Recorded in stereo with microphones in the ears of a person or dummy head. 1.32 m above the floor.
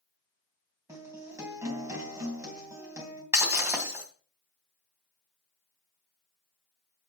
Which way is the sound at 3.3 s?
10° right (ahead or behind).